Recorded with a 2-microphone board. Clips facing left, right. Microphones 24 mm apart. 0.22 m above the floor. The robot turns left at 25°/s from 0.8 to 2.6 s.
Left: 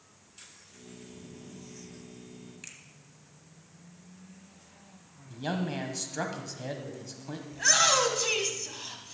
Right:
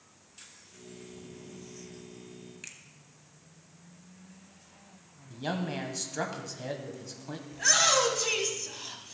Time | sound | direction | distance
2.6 | a finger snap | 5° right (ahead or behind) | 1.1 m
5.3 | a man speaking | centre (ahead or behind) | 1.0 m
7.5 | a shout | 5° left (ahead or behind) | 1.2 m